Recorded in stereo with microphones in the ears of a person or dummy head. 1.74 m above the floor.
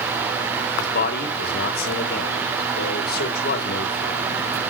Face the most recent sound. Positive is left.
turn(degrees=60)  # may be behind; listen again after turning